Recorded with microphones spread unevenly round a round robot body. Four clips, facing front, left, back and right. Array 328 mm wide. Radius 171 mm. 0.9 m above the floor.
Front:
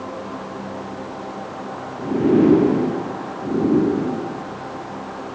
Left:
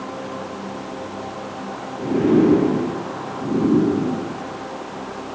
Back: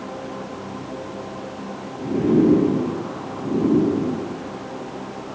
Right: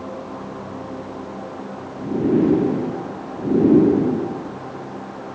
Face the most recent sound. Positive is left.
No sound to turn to.